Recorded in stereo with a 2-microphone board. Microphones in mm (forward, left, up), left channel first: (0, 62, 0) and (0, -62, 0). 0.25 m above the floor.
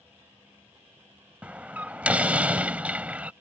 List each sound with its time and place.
1.4 s a door slam: 10° right (ahead or behind)